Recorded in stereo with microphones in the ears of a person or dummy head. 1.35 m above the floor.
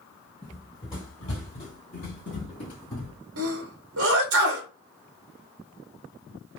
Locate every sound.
0.4 s running footsteps: 15° left (ahead or behind), 1.5 m; by 3.2 s 40° left (ahead or behind), 2 m
3.4 s a sneeze: 85° right, 0.9 m